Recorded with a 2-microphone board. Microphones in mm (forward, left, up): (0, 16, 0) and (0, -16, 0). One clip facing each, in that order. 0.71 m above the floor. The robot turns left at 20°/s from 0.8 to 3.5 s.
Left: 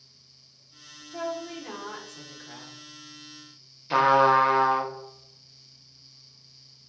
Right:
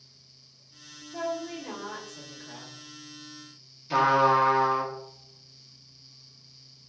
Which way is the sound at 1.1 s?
160° left.